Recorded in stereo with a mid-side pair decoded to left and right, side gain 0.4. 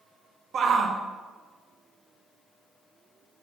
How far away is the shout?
About 0.9 m.